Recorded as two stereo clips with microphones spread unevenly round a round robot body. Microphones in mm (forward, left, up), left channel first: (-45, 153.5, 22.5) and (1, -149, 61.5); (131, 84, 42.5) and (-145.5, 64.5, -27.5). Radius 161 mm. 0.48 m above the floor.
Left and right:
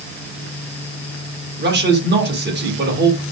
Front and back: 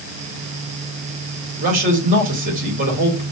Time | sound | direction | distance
1.6 | a man speaking | 135° right | 2 m